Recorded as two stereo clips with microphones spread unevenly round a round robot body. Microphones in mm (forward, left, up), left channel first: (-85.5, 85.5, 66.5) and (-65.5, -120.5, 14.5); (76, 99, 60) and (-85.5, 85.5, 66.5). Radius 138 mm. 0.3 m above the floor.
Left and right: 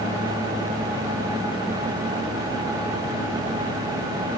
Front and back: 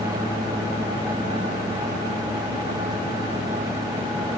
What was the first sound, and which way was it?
Only background noise.